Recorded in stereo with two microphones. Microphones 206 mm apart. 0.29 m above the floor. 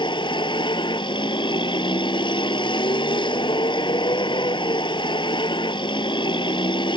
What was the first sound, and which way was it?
A vehicle, 25° left (ahead or behind).